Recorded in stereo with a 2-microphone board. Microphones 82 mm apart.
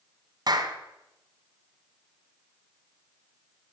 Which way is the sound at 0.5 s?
50° right (ahead or behind).